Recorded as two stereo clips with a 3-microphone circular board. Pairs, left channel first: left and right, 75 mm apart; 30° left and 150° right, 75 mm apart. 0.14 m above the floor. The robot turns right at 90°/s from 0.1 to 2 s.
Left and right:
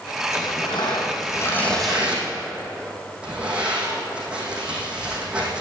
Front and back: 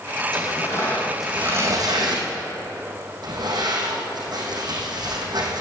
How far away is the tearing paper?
About 3.5 m.